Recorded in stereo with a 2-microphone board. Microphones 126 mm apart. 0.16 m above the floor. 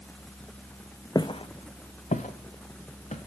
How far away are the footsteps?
About 0.5 m.